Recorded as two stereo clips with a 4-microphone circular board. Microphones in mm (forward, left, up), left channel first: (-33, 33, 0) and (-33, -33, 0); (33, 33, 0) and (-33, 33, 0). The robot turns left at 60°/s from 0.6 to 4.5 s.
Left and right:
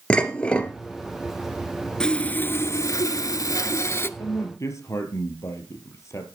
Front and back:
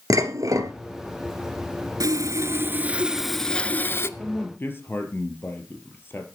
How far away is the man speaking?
About 3 m.